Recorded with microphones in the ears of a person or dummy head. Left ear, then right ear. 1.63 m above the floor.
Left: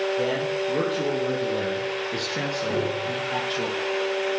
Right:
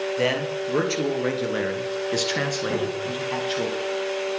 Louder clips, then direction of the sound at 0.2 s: Right 1 dB; 80° right.